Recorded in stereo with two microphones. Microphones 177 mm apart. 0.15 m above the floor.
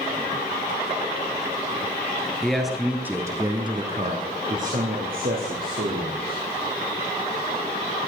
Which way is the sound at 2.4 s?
5° left (ahead or behind).